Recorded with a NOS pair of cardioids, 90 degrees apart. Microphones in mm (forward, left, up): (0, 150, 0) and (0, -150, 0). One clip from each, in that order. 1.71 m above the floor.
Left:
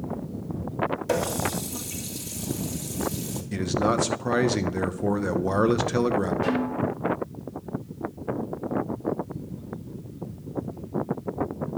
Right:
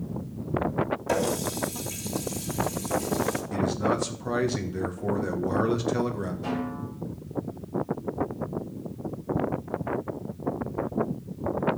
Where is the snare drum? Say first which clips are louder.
Left 6 dB; 65° left, 7.5 m.